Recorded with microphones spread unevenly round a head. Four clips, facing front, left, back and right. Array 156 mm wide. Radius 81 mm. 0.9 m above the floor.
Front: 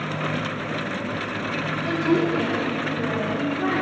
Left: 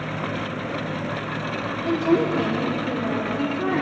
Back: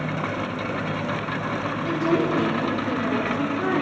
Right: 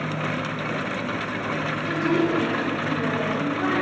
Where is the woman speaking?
75° left, 0.9 m; by 3.8 s 160° left, 2.5 m.